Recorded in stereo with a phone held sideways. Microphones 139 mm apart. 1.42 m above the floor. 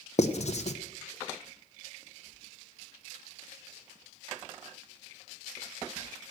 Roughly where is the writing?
Left.